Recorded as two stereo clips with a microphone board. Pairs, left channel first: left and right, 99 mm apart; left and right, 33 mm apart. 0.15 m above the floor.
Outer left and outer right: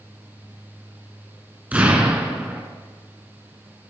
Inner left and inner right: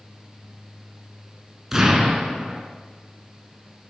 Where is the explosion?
15° right (ahead or behind), 2 m.